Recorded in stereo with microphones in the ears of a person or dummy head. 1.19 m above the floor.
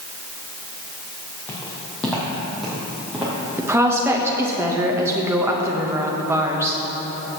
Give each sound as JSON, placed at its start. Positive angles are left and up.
{"t": 1.5, "sound": "footsteps", "side_deg": 10, "distance_m": 2.5}
{"t": 3.6, "sound": "a woman speaking", "side_deg": -15, "distance_m": 1.1}